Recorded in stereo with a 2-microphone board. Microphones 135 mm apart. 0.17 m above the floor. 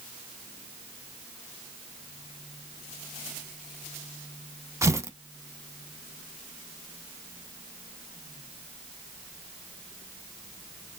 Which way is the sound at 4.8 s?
20° right (ahead or behind).